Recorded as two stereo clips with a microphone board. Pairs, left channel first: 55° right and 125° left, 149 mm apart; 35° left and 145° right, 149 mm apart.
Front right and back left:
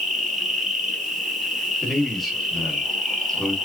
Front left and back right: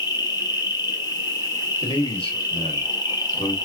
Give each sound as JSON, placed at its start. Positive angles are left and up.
{"t": 0.0, "sound": "an insect", "azimuth_deg": 95, "distance_m": 0.8}
{"t": 1.8, "sound": "a man speaking", "azimuth_deg": 35, "distance_m": 1.4}